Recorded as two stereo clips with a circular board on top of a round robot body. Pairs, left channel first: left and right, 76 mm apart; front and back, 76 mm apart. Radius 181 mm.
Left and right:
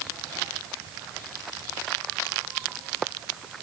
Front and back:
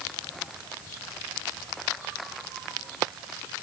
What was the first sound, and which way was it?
Only background noise.